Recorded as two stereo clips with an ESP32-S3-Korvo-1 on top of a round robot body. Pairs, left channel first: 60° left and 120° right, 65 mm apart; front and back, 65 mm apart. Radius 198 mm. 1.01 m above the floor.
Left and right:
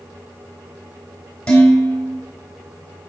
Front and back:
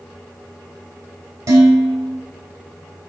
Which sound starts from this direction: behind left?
Dishes clattering, at 1.5 s.